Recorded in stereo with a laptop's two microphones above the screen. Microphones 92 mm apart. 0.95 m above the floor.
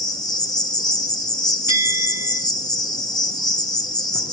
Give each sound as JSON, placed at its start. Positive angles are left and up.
{"t": 0.0, "sound": "an insect", "side_deg": 50, "distance_m": 1.5}
{"t": 1.7, "sound": "a bell", "side_deg": -35, "distance_m": 4.0}